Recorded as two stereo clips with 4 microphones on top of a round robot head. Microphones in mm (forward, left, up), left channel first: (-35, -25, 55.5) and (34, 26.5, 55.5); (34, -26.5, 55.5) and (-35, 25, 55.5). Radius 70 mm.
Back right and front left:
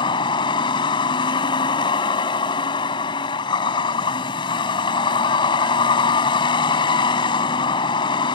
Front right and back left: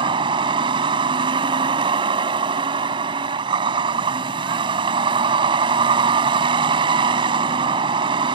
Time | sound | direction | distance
0.0 | a vehicle | straight behind | ?